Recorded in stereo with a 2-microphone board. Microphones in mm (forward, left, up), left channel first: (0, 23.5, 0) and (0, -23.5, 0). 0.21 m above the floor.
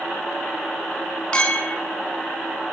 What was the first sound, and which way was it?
A clink, 20° left (ahead or behind).